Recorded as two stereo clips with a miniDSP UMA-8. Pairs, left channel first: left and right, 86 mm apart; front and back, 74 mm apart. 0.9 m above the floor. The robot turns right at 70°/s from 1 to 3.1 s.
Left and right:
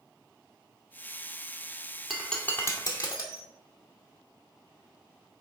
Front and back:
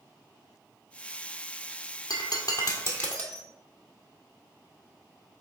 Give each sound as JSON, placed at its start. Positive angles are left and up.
{"t": 2.1, "sound": "breaking glass", "azimuth_deg": -5, "distance_m": 1.5}